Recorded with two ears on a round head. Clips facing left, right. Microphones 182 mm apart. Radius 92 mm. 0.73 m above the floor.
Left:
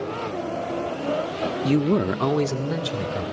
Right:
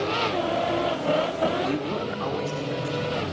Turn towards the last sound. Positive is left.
turn(degrees=80)